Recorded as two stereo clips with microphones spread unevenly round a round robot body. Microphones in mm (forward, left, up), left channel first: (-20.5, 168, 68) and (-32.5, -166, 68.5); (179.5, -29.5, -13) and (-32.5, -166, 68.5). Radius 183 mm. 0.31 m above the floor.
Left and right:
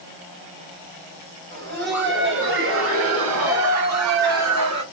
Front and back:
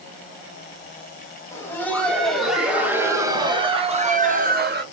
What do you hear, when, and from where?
1.5 s laughter: 35° right, 2.5 m; by 4.8 s 95° right, 1.7 m